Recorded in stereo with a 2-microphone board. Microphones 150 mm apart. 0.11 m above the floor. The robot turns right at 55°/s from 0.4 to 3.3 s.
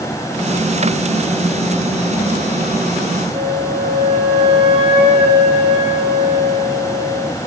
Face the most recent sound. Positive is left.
turn(degrees=-35)  # may be behind; listen again after turning